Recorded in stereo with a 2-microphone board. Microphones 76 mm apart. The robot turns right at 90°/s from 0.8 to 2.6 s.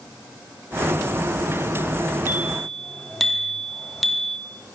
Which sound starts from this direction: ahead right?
A bicycle bell, at 2.3 s.